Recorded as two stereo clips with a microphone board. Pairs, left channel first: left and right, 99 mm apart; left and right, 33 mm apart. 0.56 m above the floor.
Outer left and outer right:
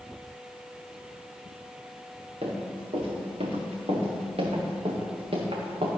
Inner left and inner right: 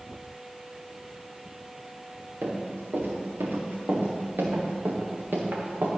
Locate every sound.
2.4 s running footsteps: 80° right, 3.5 m; by 5.9 s 65° right (ahead or behind), 2.5 m